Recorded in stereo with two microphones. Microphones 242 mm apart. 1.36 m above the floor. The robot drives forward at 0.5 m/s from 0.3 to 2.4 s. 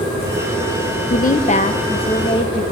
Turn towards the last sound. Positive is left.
turn(degrees=20)  # may be behind; listen again after turning